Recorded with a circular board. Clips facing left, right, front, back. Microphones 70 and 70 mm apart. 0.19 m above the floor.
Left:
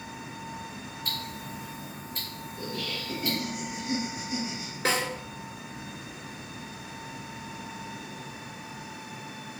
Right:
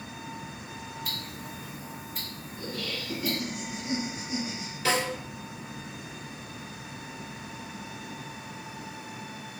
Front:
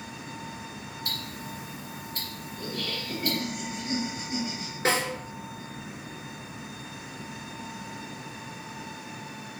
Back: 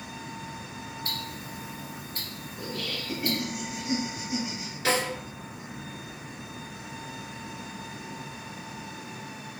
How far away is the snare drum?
About 1.3 m.